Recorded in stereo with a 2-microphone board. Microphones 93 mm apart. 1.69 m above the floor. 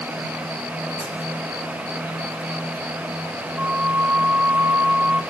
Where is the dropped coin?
75° left (ahead or behind), 5.5 m.